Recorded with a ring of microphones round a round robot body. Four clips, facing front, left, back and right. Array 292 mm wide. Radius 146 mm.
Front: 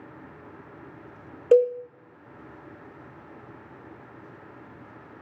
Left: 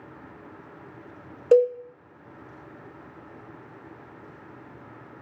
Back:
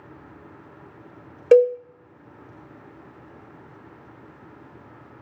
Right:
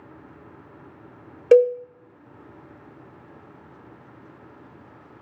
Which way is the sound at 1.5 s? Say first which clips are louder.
Right 3 dB, back 4 dB; 135° right.